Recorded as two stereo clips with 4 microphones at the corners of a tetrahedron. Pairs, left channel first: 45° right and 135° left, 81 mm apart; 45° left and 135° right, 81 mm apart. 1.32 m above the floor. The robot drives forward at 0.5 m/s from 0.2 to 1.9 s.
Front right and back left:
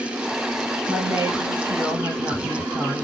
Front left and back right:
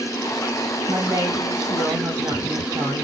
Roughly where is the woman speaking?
Behind.